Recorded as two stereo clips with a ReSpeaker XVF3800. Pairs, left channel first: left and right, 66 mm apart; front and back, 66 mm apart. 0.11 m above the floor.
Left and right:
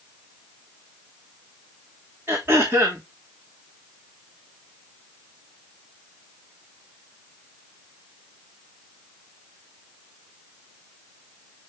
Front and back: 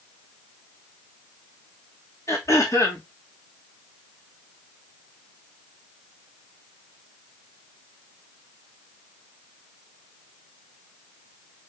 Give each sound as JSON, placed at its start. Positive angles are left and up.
{"t": 2.3, "sound": "throat clearing", "azimuth_deg": -40, "distance_m": 3.0}